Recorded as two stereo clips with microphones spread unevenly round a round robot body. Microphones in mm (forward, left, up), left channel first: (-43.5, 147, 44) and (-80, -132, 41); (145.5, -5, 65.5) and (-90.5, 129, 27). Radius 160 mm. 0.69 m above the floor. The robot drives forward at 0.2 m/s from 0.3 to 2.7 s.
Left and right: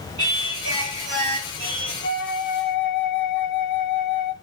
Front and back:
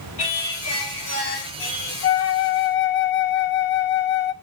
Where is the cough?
I don't hear a cough.